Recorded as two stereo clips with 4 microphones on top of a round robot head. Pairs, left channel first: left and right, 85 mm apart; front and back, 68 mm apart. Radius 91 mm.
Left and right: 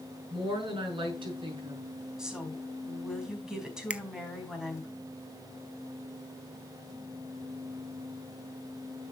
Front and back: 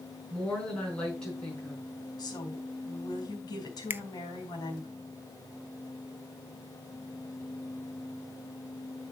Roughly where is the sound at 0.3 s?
Right.